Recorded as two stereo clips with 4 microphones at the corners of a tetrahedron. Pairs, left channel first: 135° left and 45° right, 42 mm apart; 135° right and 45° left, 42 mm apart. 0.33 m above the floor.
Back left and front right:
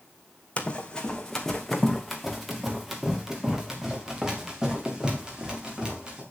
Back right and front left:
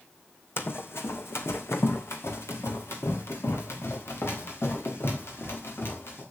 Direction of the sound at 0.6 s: 160° right.